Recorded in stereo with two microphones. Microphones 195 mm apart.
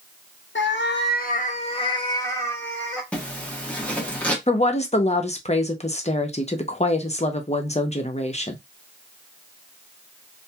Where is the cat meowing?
75° left (ahead or behind), 0.6 m; by 3.0 s 5° left (ahead or behind), 1.3 m.